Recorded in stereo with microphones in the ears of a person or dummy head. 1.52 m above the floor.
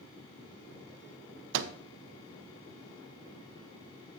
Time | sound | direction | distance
1.5 | a microwave | 65° right (ahead or behind) | 0.5 m